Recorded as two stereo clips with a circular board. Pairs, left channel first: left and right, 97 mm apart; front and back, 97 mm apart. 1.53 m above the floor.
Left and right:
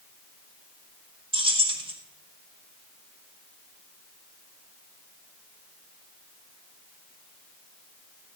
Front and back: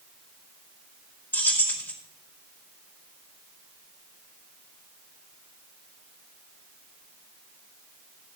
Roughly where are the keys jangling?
Right.